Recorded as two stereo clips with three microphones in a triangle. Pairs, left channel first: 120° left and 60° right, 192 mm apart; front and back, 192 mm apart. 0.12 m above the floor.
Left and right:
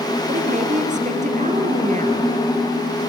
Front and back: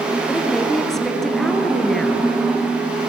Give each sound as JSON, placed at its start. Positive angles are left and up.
{"t": 0.3, "sound": "a woman speaking", "azimuth_deg": -85, "distance_m": 2.0}